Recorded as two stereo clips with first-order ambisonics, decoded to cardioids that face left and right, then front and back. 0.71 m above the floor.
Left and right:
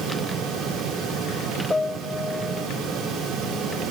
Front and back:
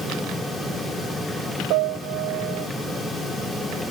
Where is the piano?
170° left.